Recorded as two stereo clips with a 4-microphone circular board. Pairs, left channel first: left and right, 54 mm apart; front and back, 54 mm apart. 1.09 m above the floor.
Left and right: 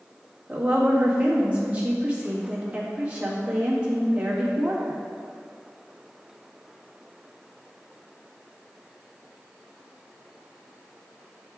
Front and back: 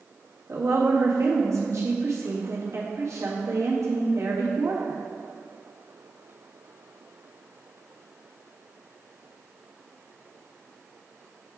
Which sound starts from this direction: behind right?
A woman speaking, at 0.5 s.